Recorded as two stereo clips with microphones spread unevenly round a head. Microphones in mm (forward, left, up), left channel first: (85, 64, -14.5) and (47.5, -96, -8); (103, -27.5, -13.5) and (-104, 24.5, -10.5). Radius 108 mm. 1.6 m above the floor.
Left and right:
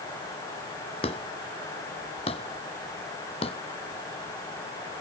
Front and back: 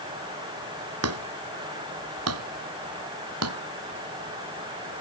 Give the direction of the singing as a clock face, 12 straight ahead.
I don't hear singing.